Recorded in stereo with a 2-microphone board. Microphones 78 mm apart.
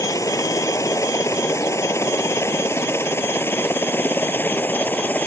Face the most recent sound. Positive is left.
turn(degrees=20)  # may be behind; listen again after turning